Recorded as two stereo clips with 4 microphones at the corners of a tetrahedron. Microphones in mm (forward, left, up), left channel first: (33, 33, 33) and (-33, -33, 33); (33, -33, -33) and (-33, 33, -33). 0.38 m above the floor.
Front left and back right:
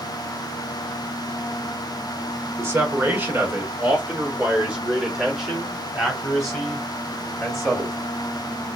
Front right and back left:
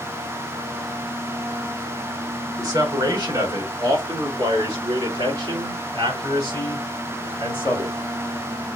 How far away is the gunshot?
I don't hear a gunshot.